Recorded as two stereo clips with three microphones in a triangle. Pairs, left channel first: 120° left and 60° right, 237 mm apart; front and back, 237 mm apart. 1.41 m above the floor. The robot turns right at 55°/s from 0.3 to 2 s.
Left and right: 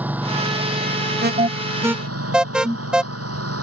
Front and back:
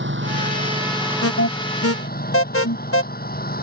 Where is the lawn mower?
145° right; by 3.6 s 50° right.